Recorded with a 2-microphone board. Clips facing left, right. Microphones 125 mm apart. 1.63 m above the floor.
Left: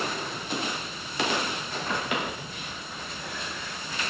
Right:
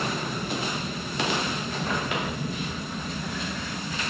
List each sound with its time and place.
0.0 s an aircraft: 60° right (ahead or behind)